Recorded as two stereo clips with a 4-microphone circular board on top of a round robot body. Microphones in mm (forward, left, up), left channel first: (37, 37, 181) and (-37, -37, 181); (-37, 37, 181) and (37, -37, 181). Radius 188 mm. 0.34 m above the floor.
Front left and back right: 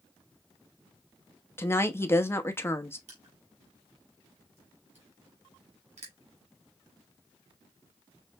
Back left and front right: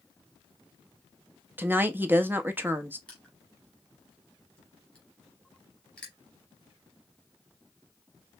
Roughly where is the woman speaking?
Ahead.